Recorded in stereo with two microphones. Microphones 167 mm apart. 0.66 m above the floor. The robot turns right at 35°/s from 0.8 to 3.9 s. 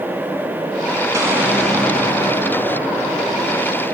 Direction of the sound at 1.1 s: 20° right.